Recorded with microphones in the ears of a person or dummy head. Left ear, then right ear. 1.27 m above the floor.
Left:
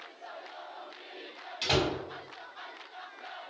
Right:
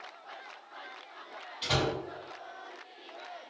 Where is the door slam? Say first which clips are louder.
Left 2 dB; 65° left (ahead or behind), 1.2 m.